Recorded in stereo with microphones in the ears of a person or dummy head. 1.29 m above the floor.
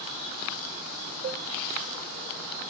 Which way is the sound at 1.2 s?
45° right (ahead or behind).